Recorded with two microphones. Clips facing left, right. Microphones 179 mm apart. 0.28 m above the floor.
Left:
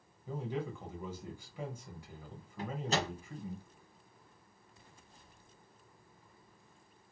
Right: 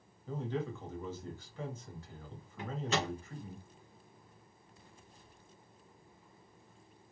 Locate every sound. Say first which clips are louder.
0.3 s a man speaking: right 1 dB; 10° left (ahead or behind), 1.5 m
2.6 s a microwave: even; 40° left (ahead or behind), 1.7 m